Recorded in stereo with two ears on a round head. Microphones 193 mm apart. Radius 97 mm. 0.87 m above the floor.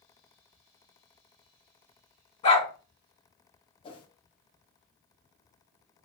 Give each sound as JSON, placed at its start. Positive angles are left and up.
{"t": 2.4, "sound": "a dog barking", "side_deg": 25, "distance_m": 1.9}
{"t": 3.8, "sound": "a whoosh", "side_deg": 25, "distance_m": 0.6}